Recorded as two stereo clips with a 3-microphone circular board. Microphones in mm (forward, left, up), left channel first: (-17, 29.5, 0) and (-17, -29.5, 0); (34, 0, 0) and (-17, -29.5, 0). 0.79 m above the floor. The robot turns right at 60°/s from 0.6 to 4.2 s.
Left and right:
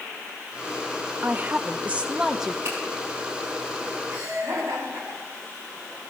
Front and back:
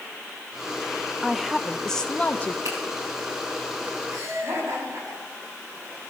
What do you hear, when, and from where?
1.2 s a woman speaking: 85° right, 0.7 m; by 2.5 s 5° right, 0.7 m
2.6 s a finger snap: 135° right, 6 m; by 2.8 s 130° right, 6 m
4.1 s laughter: 115° right, 7.5 m; by 5.8 s 110° right, 7.5 m